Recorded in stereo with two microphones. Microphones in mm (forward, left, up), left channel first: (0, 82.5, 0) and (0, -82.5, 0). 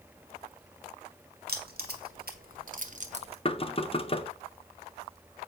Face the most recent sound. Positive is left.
turn(degrees=35)  # may be behind; listen again after turning